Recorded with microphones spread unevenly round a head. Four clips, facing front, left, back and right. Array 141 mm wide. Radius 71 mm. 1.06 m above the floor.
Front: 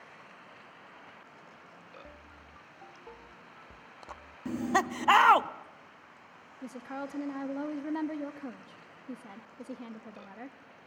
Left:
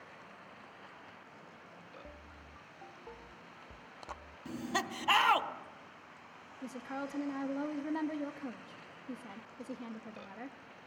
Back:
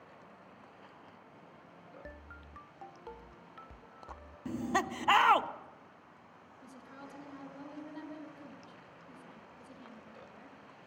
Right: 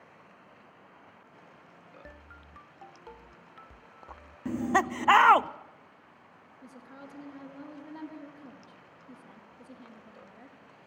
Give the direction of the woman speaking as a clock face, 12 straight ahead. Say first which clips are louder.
Left 8 dB, front 12 dB; 11 o'clock.